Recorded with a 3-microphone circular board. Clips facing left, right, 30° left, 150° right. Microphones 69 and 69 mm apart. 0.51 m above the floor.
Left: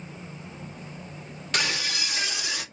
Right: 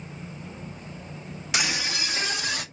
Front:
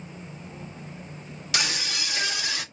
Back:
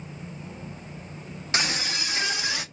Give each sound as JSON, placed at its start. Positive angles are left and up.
{"t": 1.5, "sound": "a scream", "azimuth_deg": -165, "distance_m": 1.0}